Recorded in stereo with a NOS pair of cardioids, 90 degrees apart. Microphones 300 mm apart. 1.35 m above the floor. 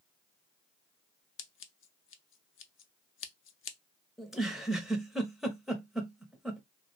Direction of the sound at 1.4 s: 45° left.